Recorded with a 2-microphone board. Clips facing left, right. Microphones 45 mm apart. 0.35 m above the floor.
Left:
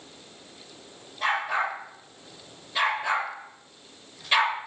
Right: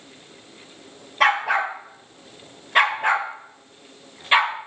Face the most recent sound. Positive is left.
turn(degrees=-25)  # may be behind; listen again after turning